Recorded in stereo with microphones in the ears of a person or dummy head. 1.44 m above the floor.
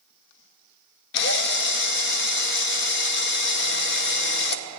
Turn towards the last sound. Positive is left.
turn(degrees=65)  # may be behind; listen again after turning